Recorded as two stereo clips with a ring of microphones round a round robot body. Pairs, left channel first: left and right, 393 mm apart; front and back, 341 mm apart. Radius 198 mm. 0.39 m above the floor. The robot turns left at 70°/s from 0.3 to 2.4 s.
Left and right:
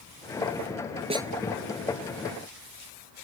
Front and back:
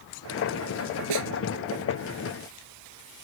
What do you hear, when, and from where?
1.1 s a snare drum: 165° right; by 1.3 s straight behind